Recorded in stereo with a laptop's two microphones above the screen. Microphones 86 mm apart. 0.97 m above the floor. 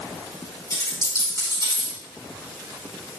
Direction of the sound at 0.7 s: 35° left (ahead or behind).